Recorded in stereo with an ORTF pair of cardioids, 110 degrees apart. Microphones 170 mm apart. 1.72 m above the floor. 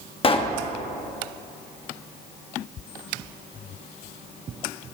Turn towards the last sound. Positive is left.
turn(degrees=35)